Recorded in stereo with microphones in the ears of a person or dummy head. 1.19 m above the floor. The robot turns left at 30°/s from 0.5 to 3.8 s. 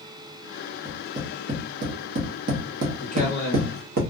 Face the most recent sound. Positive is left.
turn(degrees=-15)  # may be behind; listen again after turning